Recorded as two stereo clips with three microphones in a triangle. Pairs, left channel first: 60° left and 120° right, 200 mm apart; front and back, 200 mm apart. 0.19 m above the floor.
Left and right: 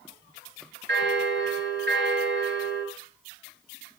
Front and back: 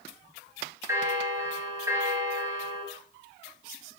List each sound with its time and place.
0.9 s a bell: 105° right, 2.5 m